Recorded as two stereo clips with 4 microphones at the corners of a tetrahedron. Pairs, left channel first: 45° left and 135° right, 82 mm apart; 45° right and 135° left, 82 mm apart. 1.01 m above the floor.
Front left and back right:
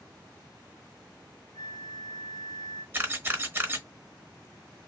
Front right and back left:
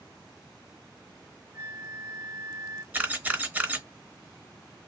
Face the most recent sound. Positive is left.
turn(degrees=-170)